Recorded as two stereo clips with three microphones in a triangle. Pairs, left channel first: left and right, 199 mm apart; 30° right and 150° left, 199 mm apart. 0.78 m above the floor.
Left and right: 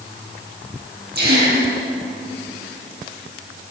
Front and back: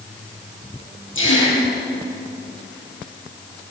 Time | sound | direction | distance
1.1 | a gasp | 50° right | 9.5 m